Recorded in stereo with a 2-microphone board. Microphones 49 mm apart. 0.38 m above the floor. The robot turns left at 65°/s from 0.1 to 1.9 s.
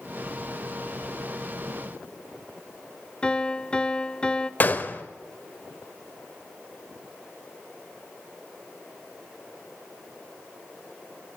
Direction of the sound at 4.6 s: 40° left (ahead or behind).